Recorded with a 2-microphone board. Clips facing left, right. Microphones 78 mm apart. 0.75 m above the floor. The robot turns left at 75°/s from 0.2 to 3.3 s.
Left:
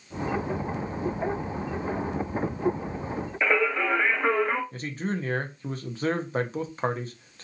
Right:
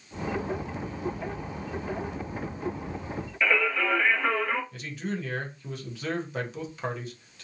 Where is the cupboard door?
I don't hear a cupboard door.